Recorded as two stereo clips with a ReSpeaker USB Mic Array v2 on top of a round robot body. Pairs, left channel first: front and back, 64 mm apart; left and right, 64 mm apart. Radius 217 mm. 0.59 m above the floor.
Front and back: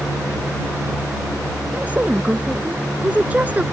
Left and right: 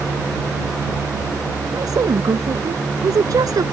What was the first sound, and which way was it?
A woman speaking, 115° right.